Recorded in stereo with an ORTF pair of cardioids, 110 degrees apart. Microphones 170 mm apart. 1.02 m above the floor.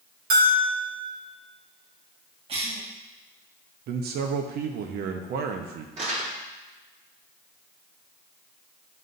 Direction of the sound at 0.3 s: 65° right.